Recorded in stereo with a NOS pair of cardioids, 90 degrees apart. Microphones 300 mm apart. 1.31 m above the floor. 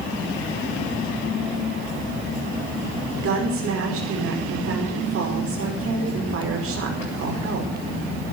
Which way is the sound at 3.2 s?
50° right.